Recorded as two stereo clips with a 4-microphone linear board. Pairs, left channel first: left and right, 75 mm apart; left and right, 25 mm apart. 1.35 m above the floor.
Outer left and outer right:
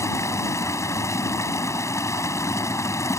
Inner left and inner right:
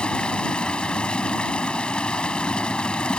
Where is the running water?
40° left (ahead or behind).